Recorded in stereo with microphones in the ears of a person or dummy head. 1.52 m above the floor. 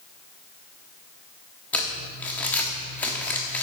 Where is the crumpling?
10° left (ahead or behind), 1.1 m.